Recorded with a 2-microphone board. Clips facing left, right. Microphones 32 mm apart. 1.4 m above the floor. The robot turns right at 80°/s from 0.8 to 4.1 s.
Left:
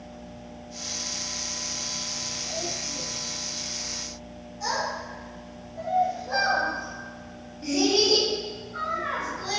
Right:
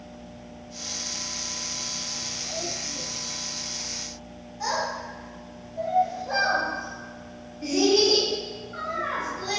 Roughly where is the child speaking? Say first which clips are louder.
Right 1 dB; right.